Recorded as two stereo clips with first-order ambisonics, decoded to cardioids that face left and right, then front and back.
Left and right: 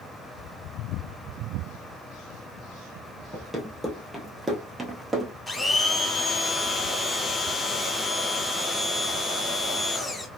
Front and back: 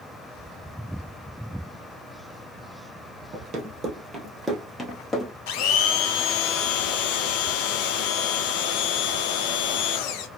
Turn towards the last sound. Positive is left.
turn(degrees=10)